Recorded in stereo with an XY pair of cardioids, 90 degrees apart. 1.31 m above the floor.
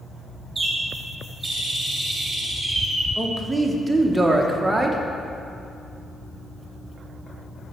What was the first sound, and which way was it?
A bird, 25° right.